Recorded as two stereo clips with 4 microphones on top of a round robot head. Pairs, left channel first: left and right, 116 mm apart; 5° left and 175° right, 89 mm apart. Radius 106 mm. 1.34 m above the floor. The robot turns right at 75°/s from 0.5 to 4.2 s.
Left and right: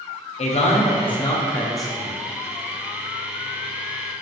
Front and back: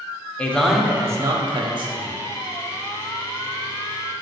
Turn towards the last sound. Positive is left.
turn(degrees=0)